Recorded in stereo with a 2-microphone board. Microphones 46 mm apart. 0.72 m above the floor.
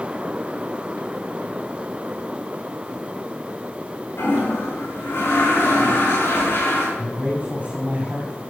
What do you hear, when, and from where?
4.2 s a toilet flushing: 60° left (ahead or behind), 6 m
7.0 s a man speaking: 30° right (ahead or behind), 4 m